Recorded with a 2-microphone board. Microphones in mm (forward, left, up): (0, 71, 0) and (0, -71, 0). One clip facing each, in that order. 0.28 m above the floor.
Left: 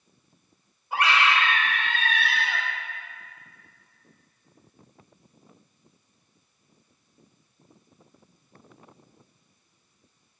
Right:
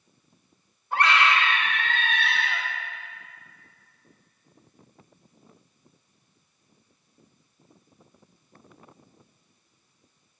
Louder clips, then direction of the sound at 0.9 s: Right 1 dB; 5° left (ahead or behind).